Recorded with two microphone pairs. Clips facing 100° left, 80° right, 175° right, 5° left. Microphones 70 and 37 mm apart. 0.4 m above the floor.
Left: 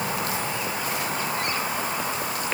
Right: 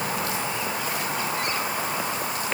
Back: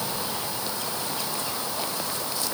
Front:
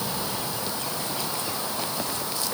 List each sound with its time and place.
Only background noise.